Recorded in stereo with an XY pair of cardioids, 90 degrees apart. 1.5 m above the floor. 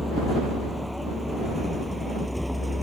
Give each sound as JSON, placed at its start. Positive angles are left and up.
{"t": 0.0, "sound": "a vehicle", "azimuth_deg": 5}